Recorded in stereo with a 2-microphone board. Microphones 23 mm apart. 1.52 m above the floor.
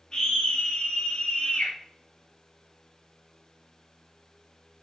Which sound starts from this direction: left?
A scream, at 0.1 s.